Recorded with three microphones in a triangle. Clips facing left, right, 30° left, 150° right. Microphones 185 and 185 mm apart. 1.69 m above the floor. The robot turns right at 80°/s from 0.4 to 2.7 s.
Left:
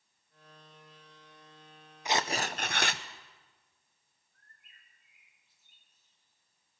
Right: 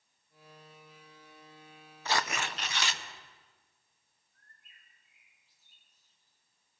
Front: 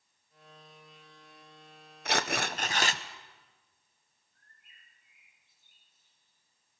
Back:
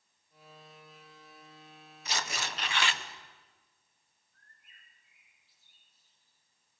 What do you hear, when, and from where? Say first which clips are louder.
2.0 s tearing paper: left 2 dB, front 7 dB; 15° left, 0.8 m; by 3.0 s 70° left, 0.8 m
4.3 s a bird: even, back 1 dB; 40° right, 6 m